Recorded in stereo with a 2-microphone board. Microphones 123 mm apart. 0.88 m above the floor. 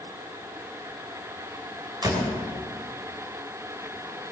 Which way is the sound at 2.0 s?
30° right (ahead or behind).